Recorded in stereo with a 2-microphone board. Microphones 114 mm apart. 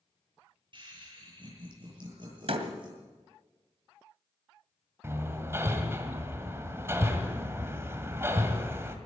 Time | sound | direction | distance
0.7 | laughter | 45° right (ahead or behind) | 9 m
2.5 | a door slam | 60° right (ahead or behind) | 2 m
5.0 | hammering | 25° right (ahead or behind) | 2 m